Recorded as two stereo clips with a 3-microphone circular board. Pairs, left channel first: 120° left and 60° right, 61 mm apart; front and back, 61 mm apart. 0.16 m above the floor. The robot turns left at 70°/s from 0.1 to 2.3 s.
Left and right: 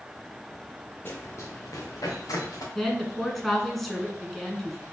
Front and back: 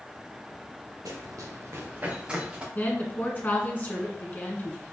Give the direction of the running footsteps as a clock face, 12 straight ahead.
6 o'clock.